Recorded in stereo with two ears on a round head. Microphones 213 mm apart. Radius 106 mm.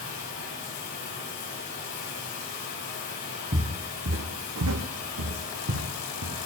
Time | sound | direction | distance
0.0 | running water | 80° left | 8.5 m
3.5 | footsteps | 30° right (ahead or behind) | 1.4 m